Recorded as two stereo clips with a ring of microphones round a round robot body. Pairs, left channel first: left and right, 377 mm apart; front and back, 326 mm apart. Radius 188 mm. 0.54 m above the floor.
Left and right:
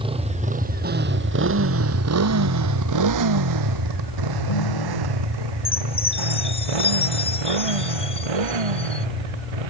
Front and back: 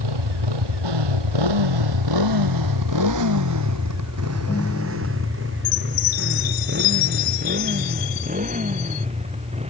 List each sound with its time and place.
0.0 s a motorcycle: 165° right; by 9.7 s 105° right
4.3 s a ringtone: 80° left
5.7 s a chime: 15° left